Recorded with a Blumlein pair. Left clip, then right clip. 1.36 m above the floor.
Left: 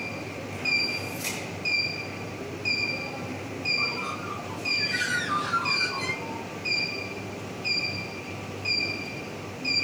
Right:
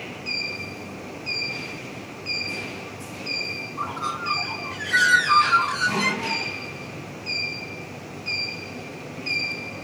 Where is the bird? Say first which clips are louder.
Right 1 dB; 60° right, 0.5 m.